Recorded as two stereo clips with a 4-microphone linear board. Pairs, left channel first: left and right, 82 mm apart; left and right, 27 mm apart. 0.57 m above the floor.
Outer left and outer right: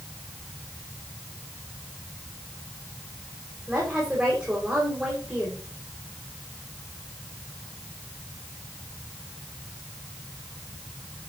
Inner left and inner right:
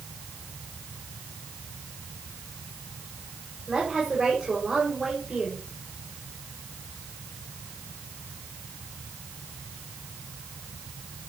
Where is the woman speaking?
10° right (ahead or behind), 2.5 m.